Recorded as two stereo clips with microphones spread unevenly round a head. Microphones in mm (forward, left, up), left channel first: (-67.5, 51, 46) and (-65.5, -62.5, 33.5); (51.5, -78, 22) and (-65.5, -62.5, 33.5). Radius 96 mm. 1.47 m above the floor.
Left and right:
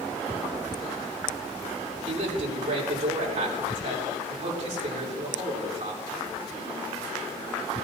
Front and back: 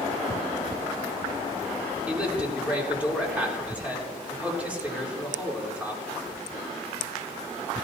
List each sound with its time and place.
2.1 s a man speaking: 110° right, 3.5 m